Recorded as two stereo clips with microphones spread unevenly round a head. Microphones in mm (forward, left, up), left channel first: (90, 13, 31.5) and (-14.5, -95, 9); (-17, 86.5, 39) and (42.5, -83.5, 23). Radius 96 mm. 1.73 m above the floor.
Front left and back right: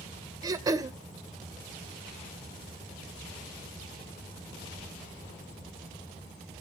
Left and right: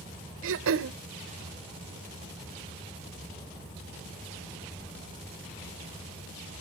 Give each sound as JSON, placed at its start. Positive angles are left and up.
{"t": 0.4, "sound": "throat clearing", "azimuth_deg": -65, "distance_m": 0.7}